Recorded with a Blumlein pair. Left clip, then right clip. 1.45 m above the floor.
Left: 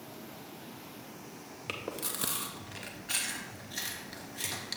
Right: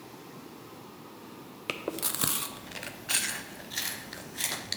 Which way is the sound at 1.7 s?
15° right.